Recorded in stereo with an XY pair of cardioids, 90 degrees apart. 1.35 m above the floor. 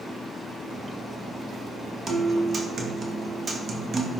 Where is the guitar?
45° right, 1.4 m.